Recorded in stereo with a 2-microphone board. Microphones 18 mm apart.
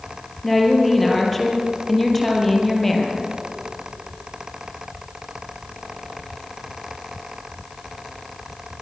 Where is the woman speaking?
15° left (ahead or behind), 5.5 m.